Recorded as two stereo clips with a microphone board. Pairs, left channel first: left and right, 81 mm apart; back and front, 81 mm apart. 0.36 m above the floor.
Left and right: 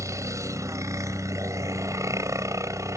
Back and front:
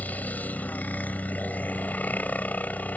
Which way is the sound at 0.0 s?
120° right.